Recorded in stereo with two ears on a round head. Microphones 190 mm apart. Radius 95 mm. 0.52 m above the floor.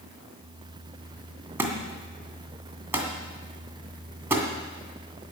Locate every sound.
1.6 s a thud: 10° right (ahead or behind), 2 m